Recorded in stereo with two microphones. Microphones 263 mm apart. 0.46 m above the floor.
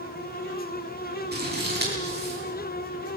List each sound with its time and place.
1.3 s scissors: 40° right (ahead or behind), 8.5 m